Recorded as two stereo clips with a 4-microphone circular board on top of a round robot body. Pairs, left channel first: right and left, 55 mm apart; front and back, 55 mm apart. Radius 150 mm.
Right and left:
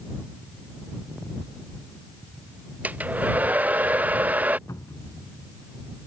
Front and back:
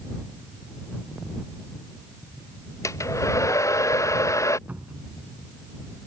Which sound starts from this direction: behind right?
A cupboard door, at 4.7 s.